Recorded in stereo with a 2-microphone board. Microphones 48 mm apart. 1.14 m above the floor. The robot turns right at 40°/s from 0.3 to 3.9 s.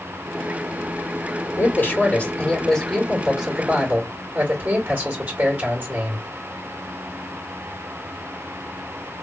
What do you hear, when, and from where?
1.6 s a man speaking: 125° left, 2.0 m; by 6.2 s 140° right, 2.0 m